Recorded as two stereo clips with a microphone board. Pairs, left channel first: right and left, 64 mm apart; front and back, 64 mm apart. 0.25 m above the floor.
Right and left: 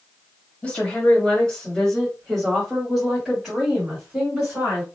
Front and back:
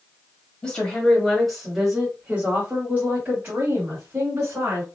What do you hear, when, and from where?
0.6 s a woman speaking: 50° right, 1.6 m; by 4.8 s 160° left, 2.5 m